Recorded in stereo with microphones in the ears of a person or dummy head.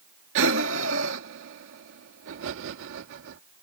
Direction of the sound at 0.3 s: 65° right (ahead or behind).